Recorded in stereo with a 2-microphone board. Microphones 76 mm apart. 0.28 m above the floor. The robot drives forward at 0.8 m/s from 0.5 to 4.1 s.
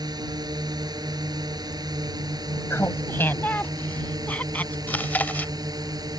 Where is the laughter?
35° left (ahead or behind); by 4.8 s 20° left (ahead or behind).